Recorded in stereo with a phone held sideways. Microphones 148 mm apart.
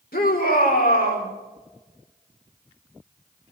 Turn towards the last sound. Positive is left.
turn(degrees=80)